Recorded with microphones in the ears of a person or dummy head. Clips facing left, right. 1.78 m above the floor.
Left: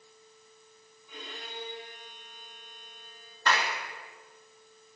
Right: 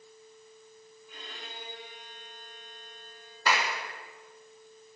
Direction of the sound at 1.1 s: 85° left.